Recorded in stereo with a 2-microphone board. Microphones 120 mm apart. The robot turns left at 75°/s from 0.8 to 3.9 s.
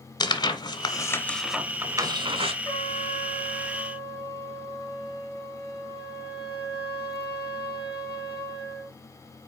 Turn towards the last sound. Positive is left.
turn(degrees=50)